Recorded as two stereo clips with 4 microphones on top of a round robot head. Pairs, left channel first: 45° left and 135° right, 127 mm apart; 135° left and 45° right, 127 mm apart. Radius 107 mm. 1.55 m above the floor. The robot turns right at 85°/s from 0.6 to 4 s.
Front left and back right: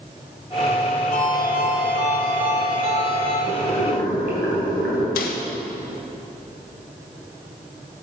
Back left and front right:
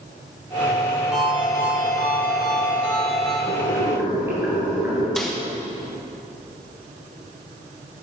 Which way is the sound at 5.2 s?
45° left.